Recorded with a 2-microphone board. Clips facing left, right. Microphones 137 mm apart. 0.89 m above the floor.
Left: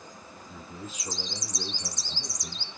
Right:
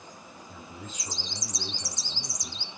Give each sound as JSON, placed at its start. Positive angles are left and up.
{"t": 0.5, "sound": "a man speaking", "side_deg": 10, "distance_m": 1.8}